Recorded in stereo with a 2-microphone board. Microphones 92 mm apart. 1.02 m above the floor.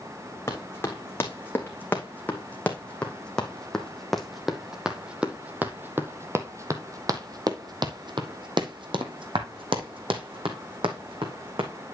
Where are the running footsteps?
25° left (ahead or behind), 3.5 m; by 11.7 s 70° right (ahead or behind), 3 m.